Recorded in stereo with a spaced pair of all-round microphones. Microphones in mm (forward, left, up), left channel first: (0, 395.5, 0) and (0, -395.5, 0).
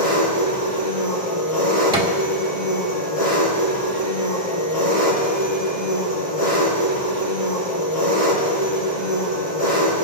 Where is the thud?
5° right (ahead or behind), 1.9 m.